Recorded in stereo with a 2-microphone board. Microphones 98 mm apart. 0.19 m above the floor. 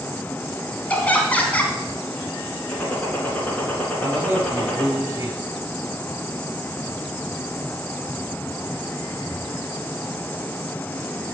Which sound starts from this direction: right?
A man speaking, at 4.0 s.